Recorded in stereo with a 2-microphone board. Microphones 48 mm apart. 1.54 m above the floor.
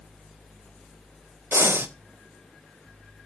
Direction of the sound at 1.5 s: 60° right (ahead or behind).